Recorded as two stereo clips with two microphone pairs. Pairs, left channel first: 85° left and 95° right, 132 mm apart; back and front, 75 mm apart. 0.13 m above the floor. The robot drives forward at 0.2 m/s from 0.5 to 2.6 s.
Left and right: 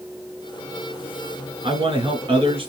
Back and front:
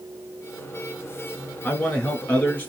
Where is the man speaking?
115° right, 2 m; by 2.7 s 120° right, 2.5 m.